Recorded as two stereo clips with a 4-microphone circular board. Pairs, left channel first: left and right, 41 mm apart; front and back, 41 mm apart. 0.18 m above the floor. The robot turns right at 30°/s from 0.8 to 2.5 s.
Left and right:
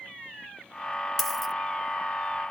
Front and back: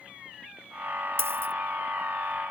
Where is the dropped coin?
175° left, 0.6 m; by 1.5 s 175° right, 0.6 m.